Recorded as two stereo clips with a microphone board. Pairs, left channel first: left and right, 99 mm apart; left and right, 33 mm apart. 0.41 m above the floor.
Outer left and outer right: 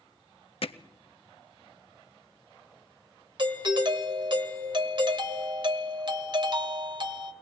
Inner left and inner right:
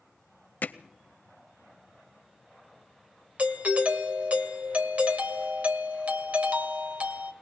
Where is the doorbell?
50° right (ahead or behind), 1.9 m.